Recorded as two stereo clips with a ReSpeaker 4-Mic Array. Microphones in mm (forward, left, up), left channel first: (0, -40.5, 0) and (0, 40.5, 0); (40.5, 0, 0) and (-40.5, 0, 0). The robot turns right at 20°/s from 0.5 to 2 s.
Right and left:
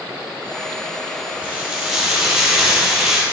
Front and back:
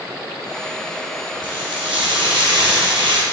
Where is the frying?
160° left, 4.5 m; by 3.2 s 175° left, 4.5 m.